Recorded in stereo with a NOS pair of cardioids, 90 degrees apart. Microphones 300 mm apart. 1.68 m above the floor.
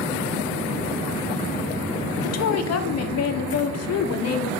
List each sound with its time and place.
2.2 s a woman speaking: 55° left, 1.2 m